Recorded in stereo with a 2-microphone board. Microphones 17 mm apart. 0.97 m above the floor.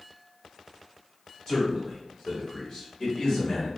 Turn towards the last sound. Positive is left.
turn(degrees=55)  # may be behind; listen again after turning